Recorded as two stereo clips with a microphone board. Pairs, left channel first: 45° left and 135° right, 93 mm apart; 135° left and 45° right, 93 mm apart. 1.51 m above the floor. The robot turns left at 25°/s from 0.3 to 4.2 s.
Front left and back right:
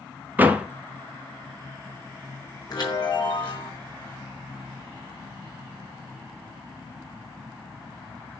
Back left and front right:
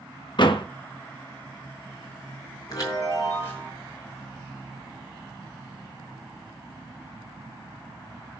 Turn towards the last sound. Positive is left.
turn(degrees=50)